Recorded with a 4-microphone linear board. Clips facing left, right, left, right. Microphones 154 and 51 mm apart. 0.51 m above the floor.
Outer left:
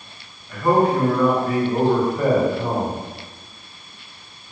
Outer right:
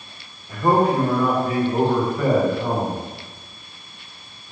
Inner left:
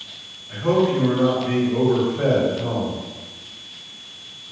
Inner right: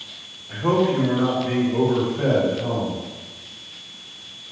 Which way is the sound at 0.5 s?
35° right (ahead or behind).